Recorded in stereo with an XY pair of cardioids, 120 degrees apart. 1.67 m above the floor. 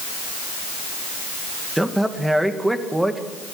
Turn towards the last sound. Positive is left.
turn(degrees=-5)